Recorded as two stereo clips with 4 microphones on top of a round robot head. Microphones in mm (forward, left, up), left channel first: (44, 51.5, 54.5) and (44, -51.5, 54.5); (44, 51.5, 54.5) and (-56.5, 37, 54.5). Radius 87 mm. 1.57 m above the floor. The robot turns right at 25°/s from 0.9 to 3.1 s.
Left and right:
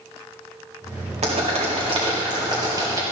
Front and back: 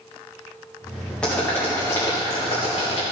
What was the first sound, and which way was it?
Boiling, 75° right.